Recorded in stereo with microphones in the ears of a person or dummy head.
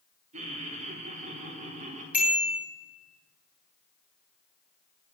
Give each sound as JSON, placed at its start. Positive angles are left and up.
{"t": 0.3, "sound": "laughter", "side_deg": -30, "distance_m": 3.5}
{"t": 2.1, "sound": "a bicycle bell", "side_deg": 0, "distance_m": 6.0}